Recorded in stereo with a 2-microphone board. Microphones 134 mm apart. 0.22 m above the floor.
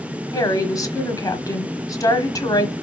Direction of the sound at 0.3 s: 25° left (ahead or behind).